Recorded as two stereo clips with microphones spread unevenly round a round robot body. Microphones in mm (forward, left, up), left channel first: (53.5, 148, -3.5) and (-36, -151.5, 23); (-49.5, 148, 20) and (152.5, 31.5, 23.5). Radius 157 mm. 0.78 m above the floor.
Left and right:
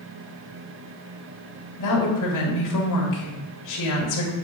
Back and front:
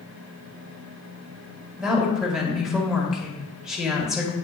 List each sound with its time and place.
1.8 s a woman speaking: 60° left, 1.9 m